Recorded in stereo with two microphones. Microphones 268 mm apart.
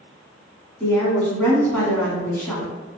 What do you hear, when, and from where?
0.8 s a woman speaking: 5° left (ahead or behind), 1.7 m